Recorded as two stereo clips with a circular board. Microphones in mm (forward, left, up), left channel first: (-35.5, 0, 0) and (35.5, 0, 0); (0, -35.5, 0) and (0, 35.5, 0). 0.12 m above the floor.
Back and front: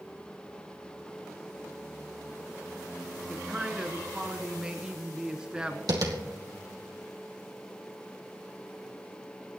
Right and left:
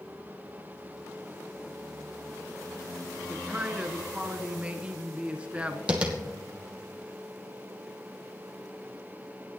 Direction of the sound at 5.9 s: 15° left.